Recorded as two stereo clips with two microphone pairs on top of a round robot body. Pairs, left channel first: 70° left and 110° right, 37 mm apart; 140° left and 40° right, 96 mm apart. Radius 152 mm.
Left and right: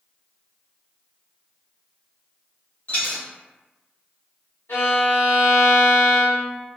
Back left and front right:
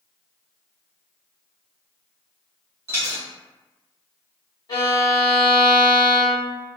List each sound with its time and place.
2.9 s a dropped coin: 30° left, 1.1 m
4.7 s a violin: 85° left, 0.9 m